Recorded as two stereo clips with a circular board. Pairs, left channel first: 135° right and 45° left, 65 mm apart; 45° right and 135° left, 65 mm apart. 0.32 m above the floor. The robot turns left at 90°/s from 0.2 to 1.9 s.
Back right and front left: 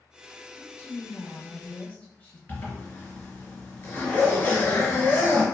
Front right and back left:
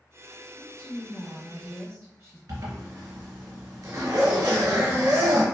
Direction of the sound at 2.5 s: 165° left.